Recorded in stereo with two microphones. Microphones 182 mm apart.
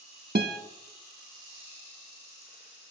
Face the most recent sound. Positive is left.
turn(degrees=-60)  # may be behind; listen again after turning